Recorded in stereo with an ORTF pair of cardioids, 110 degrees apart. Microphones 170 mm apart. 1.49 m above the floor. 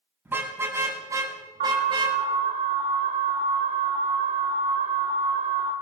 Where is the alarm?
55° right, 5.5 m.